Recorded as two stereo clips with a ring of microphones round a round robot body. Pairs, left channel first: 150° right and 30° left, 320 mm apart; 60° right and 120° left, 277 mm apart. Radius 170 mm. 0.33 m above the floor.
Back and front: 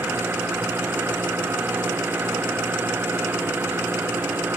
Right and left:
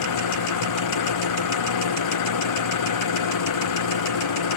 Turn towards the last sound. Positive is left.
turn(degrees=-55)